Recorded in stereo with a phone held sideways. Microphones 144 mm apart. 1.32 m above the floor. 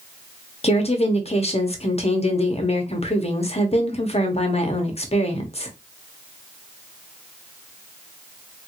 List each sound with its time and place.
0.6 s a woman speaking: 45° left (ahead or behind), 0.8 m